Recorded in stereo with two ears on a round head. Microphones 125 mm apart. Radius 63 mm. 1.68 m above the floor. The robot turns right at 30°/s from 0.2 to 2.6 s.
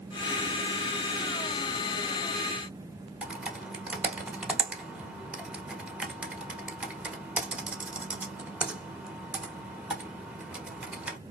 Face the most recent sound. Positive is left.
turn(degrees=-10)  # may be behind; listen again after turning